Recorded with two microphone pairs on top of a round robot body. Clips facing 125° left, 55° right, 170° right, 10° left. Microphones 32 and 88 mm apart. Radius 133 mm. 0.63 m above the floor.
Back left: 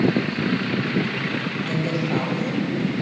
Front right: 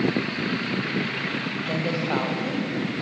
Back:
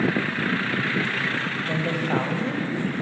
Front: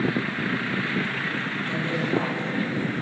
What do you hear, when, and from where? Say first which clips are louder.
1.7 s a woman speaking: back left 1 dB, back 1 dB; 125° right, 3.5 m